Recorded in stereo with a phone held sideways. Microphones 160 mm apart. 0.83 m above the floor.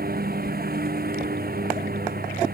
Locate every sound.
0.0 s a lawn mower: 85° right